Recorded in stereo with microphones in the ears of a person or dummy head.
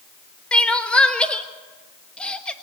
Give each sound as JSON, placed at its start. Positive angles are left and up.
{"t": 0.5, "sound": "crying", "side_deg": 10, "distance_m": 1.2}